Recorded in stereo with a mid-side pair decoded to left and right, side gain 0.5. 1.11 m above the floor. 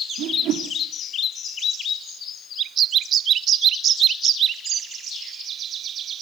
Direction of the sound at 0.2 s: 70° right.